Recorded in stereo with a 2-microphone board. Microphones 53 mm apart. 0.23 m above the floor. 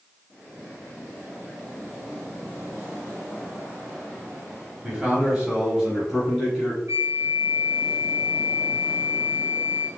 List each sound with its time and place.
4.8 s a man speaking: 15° right (ahead or behind), 1.0 m; by 6.8 s 5° right (ahead or behind), 1.4 m
6.9 s a flute: 60° right (ahead or behind), 0.6 m